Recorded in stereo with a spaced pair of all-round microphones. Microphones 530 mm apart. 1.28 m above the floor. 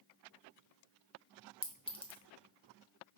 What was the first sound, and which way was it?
A clink, 10° left (ahead or behind).